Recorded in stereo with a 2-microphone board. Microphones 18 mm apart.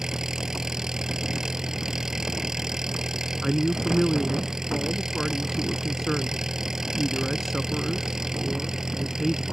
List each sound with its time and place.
0.0 s an engine running: 25° right (ahead or behind)
3.4 s a man speaking: 10° left (ahead or behind)